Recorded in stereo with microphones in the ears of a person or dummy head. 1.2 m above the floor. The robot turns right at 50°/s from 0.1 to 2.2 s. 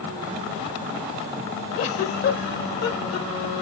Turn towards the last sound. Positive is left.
turn(degrees=55)  # may be behind; listen again after turning